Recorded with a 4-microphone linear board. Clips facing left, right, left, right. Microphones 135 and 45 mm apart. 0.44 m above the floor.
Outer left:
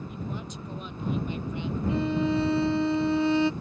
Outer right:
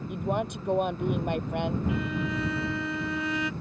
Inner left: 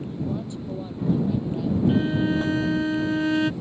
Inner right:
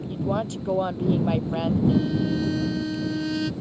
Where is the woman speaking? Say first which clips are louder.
Outer right 7 dB, inner right 6 dB; 70° right (ahead or behind).